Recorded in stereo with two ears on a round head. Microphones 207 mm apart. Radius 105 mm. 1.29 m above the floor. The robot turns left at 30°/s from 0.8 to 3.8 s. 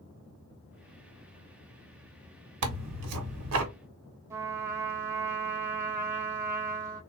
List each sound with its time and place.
2.6 s tearing paper: 85° right, 1.1 m; by 3.7 s 115° right, 1.1 m
4.3 s a trumpet: 15° right (ahead or behind), 1.1 m